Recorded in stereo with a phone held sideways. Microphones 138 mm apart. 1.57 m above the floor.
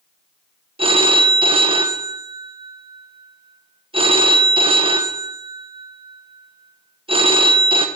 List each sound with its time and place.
0.8 s a phone ringing: 40° right (ahead or behind), 0.6 m